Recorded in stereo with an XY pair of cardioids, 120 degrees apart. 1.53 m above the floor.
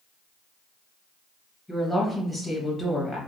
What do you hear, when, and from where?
1.7 s a woman speaking: 5° left, 1.8 m